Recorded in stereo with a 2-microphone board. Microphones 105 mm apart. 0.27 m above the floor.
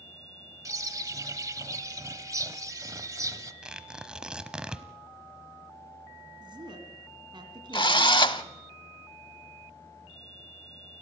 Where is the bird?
35° right (ahead or behind), 0.9 m.